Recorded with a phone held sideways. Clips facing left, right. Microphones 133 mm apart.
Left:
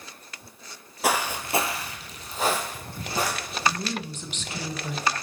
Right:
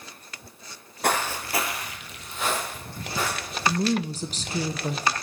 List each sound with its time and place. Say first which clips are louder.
1.0 s footsteps: even; 5° left (ahead or behind), 0.9 m; by 3.7 s 40° left (ahead or behind), 3 m
3.7 s a woman speaking: right 5 dB; 35° right (ahead or behind), 0.6 m